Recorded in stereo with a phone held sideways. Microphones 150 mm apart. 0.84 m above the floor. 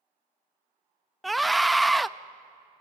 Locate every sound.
1.2 s a scream: centre (ahead or behind), 0.5 m